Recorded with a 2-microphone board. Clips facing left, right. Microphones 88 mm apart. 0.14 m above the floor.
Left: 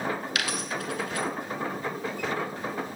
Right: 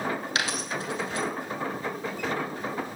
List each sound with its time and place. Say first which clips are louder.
0.3 s a dropped coin: right 1 dB; 30° right (ahead or behind), 0.9 m